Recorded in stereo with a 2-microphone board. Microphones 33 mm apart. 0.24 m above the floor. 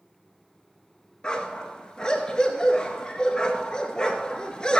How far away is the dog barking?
About 1.4 m.